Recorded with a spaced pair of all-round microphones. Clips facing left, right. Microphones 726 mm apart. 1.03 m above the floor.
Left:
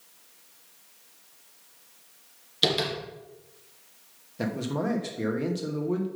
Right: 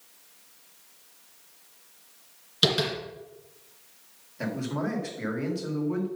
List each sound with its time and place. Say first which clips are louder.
2.6 s tapping: right 1 dB; 45° right (ahead or behind), 2.5 m
4.4 s a man speaking: left 1 dB; 65° left (ahead or behind), 1.5 m